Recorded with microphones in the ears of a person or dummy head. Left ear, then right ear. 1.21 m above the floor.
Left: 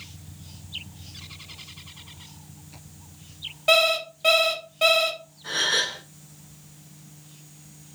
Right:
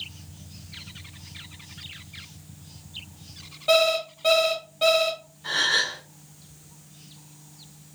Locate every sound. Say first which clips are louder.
3.7 s an alarm clock: left 1 dB; 15° left (ahead or behind), 0.8 m
5.4 s a gasp: right 1 dB; 10° right (ahead or behind), 1.3 m